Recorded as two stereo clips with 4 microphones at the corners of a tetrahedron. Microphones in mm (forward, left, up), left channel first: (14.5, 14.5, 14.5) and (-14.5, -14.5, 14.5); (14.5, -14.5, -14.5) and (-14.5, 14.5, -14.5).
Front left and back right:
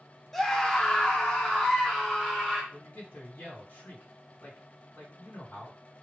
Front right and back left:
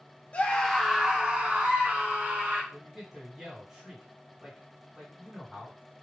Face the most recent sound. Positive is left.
turn(degrees=50)